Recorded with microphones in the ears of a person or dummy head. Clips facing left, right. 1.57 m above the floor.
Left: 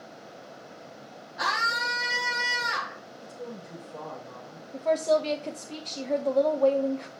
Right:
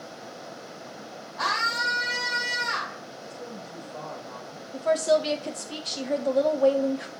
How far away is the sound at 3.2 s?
About 4.5 m.